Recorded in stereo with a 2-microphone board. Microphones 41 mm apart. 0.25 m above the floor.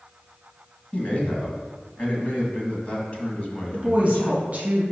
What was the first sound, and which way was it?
A man speaking, 35° left (ahead or behind).